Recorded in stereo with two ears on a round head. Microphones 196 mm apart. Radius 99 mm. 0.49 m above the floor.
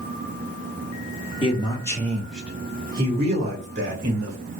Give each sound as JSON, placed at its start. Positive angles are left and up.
{"t": 1.4, "sound": "a man speaking", "side_deg": 25, "distance_m": 1.1}